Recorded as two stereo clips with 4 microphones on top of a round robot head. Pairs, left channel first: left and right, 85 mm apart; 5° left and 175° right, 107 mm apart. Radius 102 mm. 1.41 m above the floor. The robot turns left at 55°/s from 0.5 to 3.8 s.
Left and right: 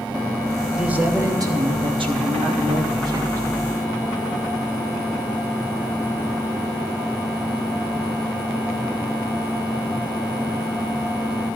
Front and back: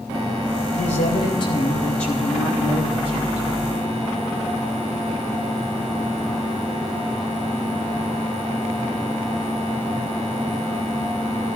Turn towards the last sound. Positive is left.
turn(degrees=-175)